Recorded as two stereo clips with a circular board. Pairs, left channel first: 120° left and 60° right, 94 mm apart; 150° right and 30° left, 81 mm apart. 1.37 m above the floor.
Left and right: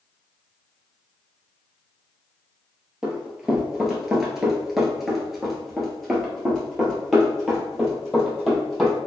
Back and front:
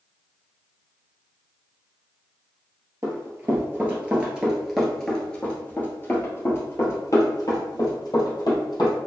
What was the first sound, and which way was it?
Running footsteps, 20° left.